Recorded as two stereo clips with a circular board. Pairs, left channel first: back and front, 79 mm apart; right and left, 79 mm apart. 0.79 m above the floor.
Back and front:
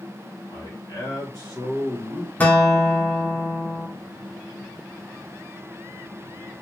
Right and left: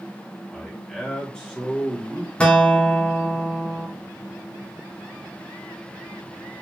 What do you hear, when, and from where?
0.5 s a man speaking: 165° right, 1.6 m
2.4 s a guitar: 150° right, 0.7 m